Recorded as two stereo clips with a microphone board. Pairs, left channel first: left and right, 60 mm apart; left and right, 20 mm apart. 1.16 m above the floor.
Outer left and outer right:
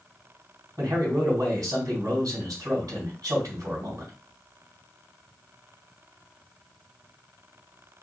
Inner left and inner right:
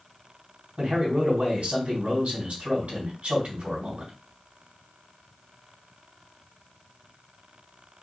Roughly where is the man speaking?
Right.